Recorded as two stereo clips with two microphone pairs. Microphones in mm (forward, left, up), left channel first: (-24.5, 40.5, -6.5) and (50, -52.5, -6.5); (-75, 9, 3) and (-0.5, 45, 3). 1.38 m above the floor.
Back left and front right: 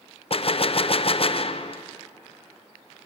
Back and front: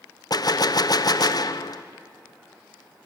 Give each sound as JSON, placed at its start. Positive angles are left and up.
{"t": 0.3, "sound": "a gunshot", "azimuth_deg": 165, "distance_m": 0.5}